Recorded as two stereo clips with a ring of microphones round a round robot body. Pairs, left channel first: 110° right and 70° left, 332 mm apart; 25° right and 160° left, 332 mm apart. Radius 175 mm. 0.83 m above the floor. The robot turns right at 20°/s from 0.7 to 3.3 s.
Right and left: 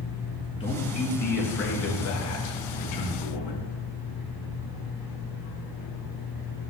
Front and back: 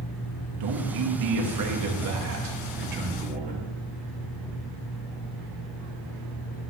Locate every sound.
0.6 s a man speaking: 175° left, 1.0 m; by 3.7 s 135° right, 1.0 m